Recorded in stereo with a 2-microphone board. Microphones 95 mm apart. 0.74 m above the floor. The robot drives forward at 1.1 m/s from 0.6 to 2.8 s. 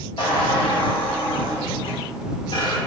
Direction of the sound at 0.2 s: 60° left (ahead or behind).